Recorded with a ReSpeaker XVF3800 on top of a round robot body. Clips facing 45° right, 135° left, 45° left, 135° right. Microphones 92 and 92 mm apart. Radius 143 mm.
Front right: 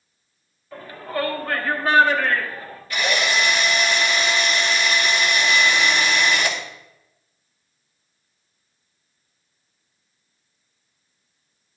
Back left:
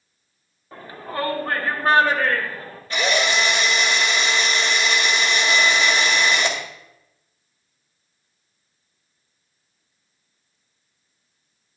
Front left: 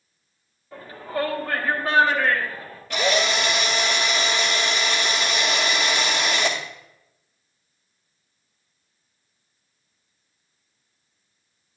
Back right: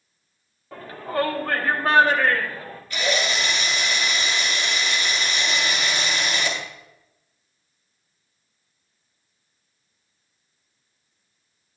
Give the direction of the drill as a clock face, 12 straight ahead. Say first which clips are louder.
Back left 1 dB, front left 3 dB; 10 o'clock.